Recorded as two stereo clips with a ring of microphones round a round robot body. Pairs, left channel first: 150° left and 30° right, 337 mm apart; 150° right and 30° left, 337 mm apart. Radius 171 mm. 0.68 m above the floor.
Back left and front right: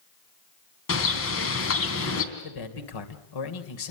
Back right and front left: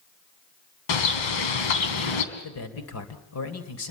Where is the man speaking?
165° left, 2.5 m.